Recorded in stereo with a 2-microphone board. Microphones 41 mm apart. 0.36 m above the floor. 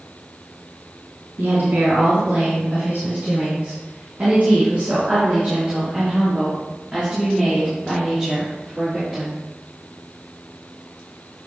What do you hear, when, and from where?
1.4 s a woman speaking: 75° right (ahead or behind), 3.5 m; by 9.4 s 10° right (ahead or behind), 6 m